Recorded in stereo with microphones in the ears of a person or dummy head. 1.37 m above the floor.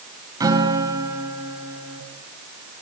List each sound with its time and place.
0.4 s a guitar: 25° right (ahead or behind), 2.5 m